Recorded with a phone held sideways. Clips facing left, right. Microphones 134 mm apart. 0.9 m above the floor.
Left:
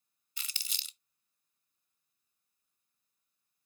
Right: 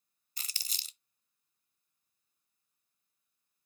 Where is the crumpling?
40° right (ahead or behind), 0.9 m.